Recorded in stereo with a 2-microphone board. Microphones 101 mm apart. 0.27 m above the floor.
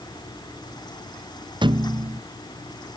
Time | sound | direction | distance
1.6 | a thud | 50° right (ahead or behind) | ?